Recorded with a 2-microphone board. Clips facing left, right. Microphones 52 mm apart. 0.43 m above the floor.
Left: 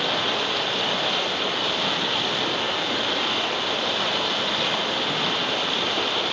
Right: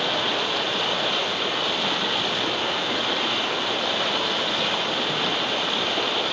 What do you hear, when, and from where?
0.0 s running water: 5° right (ahead or behind), 4.5 m